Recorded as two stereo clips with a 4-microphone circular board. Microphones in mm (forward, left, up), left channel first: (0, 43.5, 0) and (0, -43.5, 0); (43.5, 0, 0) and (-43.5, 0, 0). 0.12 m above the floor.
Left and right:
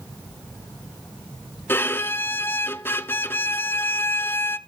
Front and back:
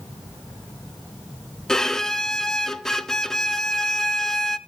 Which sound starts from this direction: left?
A violin, at 1.7 s.